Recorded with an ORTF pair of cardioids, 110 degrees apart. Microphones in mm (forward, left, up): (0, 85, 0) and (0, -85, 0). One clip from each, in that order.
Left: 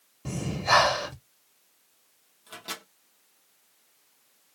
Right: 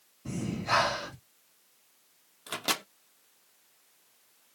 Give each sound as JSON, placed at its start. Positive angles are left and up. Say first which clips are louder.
{"t": 0.2, "sound": "breathing", "louder": "left 6 dB", "azimuth_deg": 50, "distance_m": 1.0}
{"t": 2.5, "sound": "a microwave", "louder": "right 7 dB", "azimuth_deg": -50, "distance_m": 0.6}